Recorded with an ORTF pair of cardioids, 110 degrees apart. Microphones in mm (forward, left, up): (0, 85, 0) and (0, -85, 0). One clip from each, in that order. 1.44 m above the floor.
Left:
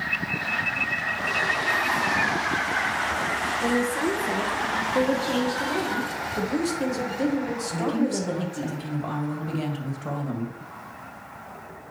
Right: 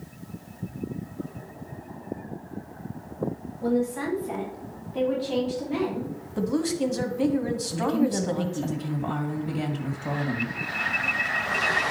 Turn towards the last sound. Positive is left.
turn(degrees=10)